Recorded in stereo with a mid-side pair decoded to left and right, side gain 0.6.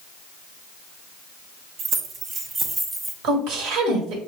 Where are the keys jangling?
55° right, 1.1 m; by 3.1 s 10° right, 1.2 m.